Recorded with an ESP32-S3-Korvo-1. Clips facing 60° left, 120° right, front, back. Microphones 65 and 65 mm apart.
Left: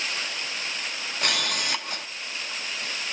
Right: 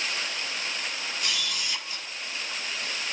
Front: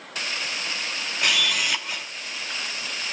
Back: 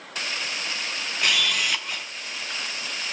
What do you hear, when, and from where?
1.2 s a camera shutter: 90° left, 1.0 m